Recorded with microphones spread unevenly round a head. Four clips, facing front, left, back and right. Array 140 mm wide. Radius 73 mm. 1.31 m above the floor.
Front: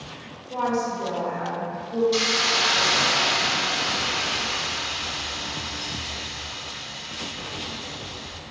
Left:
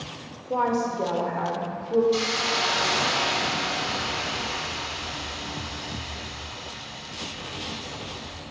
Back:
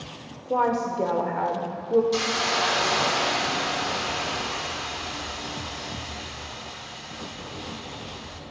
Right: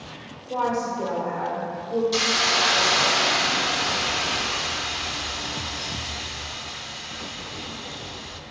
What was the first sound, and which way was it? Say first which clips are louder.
A woman speaking: left 1 dB, back 2 dB; 165° left.